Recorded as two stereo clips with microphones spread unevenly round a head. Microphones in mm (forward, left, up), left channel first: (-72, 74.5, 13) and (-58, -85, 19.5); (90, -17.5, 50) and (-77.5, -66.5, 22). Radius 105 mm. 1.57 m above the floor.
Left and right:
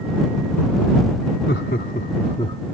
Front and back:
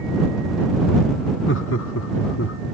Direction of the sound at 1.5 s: 50° left.